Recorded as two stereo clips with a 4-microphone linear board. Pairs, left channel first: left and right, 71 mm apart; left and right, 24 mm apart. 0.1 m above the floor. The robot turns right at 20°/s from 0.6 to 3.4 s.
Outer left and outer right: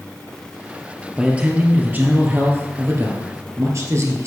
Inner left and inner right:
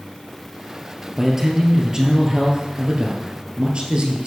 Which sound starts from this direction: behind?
A man speaking, at 1.1 s.